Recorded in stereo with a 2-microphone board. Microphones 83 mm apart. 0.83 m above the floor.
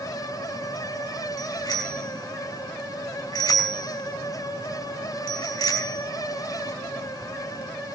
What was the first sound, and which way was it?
A bicycle bell, 55° left (ahead or behind).